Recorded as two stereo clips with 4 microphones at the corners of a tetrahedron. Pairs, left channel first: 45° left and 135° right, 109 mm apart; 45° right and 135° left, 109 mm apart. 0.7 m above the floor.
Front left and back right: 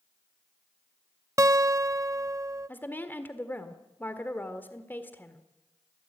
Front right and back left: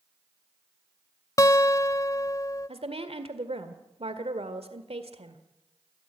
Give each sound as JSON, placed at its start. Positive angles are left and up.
{"t": 1.4, "sound": "a guitar", "azimuth_deg": -90, "distance_m": 0.5}
{"t": 2.7, "sound": "a woman speaking", "azimuth_deg": 115, "distance_m": 1.8}